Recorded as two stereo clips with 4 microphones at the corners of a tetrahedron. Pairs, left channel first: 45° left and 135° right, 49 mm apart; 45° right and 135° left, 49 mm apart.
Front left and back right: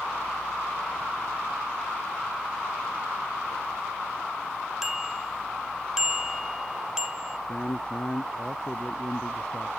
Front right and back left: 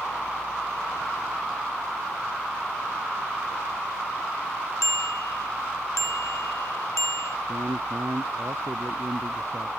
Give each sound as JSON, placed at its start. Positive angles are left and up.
{"t": 4.8, "sound": "a bicycle bell", "azimuth_deg": -55}
{"t": 7.5, "sound": "a man speaking", "azimuth_deg": 115}